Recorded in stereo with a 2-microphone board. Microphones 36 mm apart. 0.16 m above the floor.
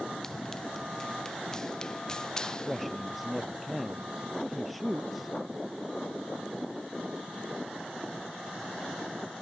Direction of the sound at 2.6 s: Centre (ahead or behind).